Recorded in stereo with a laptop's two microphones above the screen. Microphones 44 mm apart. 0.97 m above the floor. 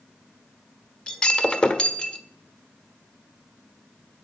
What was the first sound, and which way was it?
Breaking glass, 20° left (ahead or behind).